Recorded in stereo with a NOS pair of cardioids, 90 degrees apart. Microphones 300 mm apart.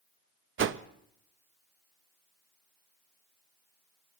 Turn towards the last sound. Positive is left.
turn(degrees=-40)